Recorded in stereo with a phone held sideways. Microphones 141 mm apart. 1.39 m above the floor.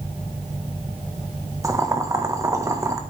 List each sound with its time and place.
1.6 s boiling: 20° right (ahead or behind), 1.6 m